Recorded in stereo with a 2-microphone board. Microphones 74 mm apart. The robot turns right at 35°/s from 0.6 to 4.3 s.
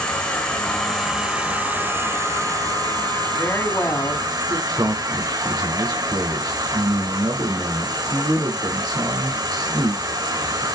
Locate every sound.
0.0 s an insect: 165° left, 4 m; by 10.8 s 65° right, 4 m
3.4 s a woman speaking: 20° left, 3 m; by 4.6 s 50° left, 3 m
4.7 s a man speaking: 65° right (ahead or behind), 4.5 m